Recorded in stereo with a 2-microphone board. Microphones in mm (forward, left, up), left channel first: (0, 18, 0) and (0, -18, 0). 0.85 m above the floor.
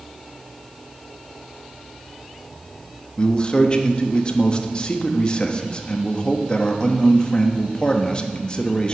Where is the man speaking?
25° left (ahead or behind), 1.0 m.